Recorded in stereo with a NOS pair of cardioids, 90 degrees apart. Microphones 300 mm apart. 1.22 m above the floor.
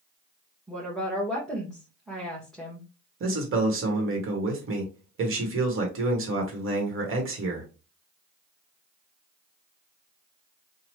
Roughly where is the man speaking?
Ahead right.